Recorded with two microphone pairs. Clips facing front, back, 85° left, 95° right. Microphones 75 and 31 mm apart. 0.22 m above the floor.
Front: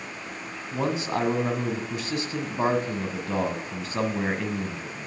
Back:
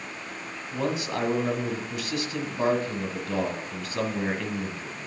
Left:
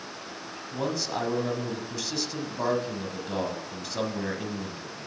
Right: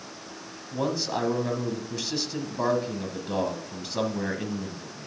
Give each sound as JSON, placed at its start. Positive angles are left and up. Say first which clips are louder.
{"t": 0.7, "sound": "a man speaking", "louder": "front 2 dB, right 2 dB", "azimuth_deg": -25, "distance_m": 1.5}